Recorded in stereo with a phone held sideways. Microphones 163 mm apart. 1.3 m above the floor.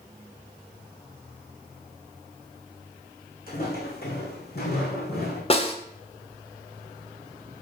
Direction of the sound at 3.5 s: 60° left (ahead or behind).